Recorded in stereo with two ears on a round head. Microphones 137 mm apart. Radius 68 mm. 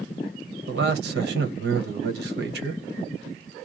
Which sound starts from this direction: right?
A man speaking, at 0.7 s.